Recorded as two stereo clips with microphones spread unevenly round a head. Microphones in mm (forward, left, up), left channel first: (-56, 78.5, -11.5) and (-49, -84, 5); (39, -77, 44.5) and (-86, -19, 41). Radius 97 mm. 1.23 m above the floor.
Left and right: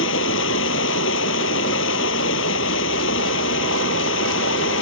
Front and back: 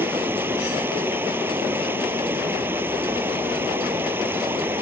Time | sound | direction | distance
0.0 | running water | 75° left | ?